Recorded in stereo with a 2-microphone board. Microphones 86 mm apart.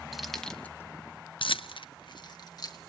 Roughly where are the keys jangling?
Centre.